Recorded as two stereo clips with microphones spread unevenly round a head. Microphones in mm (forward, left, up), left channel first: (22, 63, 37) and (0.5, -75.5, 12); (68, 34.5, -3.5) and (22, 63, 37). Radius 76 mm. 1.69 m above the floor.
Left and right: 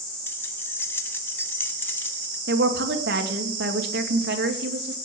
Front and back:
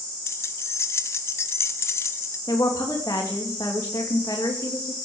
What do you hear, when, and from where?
0.3 s keys jangling: 40° left, 1.0 m
2.5 s a woman speaking: 95° right, 2.5 m